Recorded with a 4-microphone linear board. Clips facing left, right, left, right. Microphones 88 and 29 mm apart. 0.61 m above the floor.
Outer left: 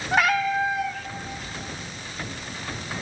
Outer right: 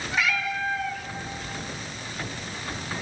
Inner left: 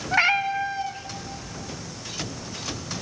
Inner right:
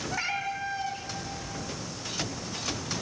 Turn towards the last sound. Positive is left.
turn(degrees=-50)  # may be behind; listen again after turning